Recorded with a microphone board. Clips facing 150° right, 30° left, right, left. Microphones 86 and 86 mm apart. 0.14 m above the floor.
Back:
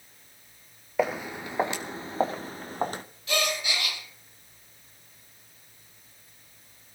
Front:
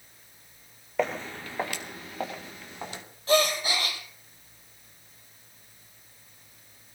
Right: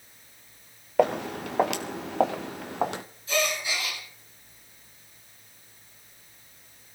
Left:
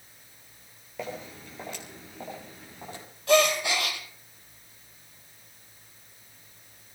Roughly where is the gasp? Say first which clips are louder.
Front 6 dB, left 7 dB; left.